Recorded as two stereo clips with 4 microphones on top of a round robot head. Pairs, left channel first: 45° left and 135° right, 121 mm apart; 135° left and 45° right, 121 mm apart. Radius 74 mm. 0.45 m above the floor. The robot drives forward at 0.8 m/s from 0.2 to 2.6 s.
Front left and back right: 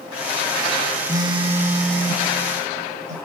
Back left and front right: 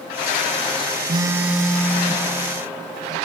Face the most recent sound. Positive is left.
turn(degrees=-165)